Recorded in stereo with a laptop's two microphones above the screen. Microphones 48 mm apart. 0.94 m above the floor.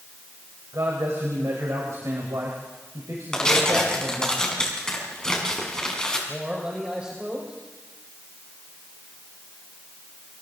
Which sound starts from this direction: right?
A man speaking, at 0.7 s.